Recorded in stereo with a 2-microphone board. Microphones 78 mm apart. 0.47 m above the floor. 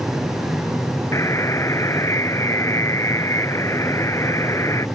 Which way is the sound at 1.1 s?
40° left (ahead or behind).